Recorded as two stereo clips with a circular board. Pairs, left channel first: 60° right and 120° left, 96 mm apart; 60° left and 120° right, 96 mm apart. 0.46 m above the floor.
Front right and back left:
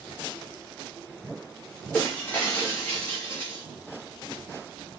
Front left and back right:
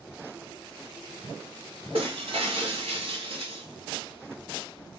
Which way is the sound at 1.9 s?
130° right.